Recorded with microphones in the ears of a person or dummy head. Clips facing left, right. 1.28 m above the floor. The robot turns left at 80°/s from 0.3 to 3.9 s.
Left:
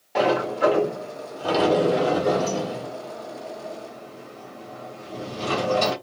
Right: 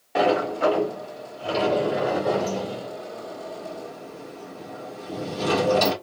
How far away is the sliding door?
About 1.7 m.